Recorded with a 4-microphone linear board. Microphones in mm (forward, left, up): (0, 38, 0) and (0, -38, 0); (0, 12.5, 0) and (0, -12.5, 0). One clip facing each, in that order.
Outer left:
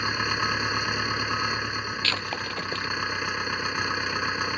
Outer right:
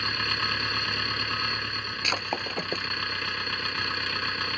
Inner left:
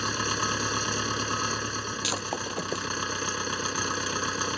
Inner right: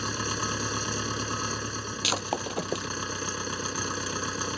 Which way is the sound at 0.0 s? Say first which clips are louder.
Outer left 3 dB, inner left 3 dB; 15° left (ahead or behind).